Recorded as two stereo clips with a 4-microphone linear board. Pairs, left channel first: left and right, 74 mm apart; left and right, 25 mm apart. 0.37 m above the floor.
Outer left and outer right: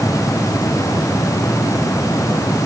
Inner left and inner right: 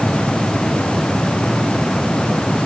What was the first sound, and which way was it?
Only background noise.